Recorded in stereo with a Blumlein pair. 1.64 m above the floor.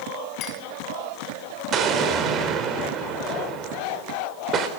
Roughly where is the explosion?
Ahead right.